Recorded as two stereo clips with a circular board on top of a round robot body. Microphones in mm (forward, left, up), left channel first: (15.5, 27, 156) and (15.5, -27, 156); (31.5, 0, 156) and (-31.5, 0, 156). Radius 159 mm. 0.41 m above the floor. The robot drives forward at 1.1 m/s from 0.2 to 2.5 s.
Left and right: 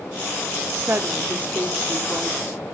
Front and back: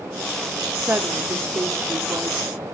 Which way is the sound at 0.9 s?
125° right.